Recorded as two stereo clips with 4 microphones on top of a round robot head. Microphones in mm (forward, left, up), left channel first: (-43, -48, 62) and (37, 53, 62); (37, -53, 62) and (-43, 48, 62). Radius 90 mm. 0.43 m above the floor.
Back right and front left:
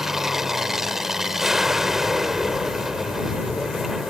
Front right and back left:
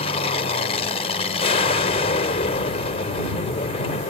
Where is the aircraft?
35° right.